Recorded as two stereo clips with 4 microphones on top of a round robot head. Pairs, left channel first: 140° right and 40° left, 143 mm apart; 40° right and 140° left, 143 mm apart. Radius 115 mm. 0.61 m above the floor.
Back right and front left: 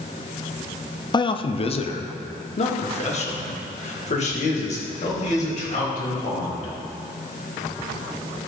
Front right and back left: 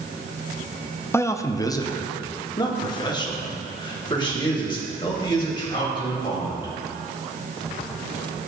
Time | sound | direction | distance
1.1 | a man speaking | 105° right | 0.6 m